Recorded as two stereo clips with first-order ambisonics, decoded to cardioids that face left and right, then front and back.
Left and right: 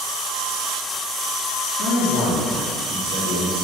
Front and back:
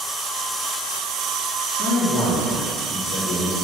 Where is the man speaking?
50° left, 3 m; by 3.5 s 40° left, 5 m.